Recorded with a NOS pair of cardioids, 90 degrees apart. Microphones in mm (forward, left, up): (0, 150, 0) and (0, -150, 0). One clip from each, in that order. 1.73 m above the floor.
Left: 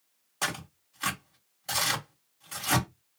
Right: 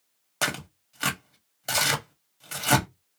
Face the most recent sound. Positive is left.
turn(degrees=-65)